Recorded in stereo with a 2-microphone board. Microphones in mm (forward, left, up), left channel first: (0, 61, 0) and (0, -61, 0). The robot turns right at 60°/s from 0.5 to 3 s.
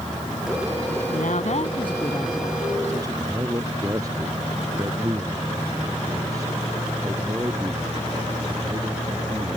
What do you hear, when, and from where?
1.1 s a woman speaking: 95° left; by 3.3 s 150° right
3.2 s a man speaking: 25° right (ahead or behind)